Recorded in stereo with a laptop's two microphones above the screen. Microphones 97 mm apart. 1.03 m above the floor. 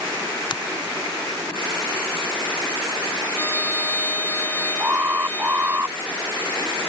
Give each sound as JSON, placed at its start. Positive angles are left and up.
{"t": 0.5, "sound": "a finger snap", "side_deg": 50}
{"t": 3.4, "sound": "a trumpet", "side_deg": 15}
{"t": 4.8, "sound": "an alarm", "side_deg": -20}